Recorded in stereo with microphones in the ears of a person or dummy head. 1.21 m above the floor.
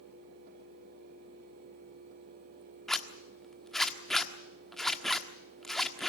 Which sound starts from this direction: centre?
A zipper, at 2.9 s.